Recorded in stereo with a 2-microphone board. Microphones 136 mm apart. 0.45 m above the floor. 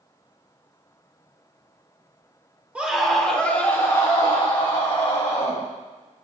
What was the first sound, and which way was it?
A scream, 10° right (ahead or behind).